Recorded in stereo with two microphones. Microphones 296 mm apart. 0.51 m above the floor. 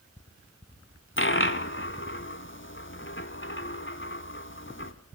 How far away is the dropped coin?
About 0.9 m.